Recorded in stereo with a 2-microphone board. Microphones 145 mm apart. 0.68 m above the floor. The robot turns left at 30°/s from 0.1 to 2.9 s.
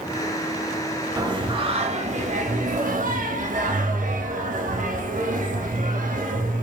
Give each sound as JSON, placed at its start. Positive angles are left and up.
{"t": 1.2, "sound": "singing", "azimuth_deg": -30, "distance_m": 0.7}